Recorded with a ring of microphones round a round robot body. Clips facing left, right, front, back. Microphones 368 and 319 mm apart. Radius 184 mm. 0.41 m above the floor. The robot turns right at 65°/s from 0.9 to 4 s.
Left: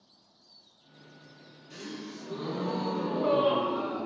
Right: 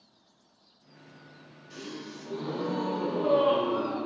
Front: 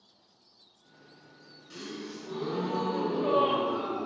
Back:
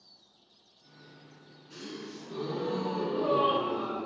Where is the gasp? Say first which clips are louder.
Even, front 2 dB; 5° left, 0.9 m; by 4.1 s 155° left, 0.9 m.